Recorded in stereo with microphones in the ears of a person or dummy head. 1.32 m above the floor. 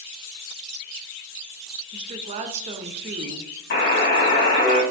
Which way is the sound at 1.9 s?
35° right (ahead or behind).